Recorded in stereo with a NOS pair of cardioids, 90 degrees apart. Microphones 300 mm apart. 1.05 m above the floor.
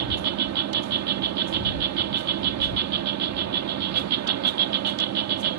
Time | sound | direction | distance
0.0 | an insect | 65° right | ?